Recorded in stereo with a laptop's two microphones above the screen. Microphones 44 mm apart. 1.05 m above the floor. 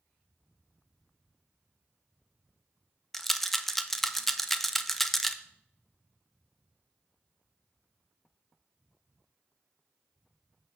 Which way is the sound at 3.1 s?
5° left (ahead or behind).